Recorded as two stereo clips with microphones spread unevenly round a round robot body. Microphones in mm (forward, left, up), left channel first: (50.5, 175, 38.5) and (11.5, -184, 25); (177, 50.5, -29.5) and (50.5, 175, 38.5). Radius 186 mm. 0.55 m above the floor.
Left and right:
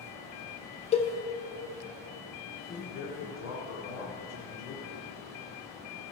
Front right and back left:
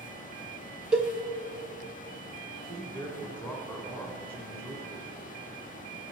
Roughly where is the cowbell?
Ahead.